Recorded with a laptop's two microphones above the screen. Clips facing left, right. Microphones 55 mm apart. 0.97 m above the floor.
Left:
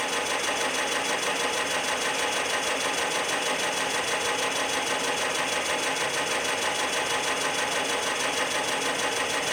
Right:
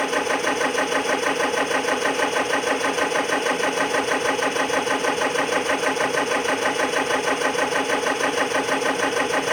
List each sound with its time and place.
0.0 s a machine running: 40° right (ahead or behind), 2.5 m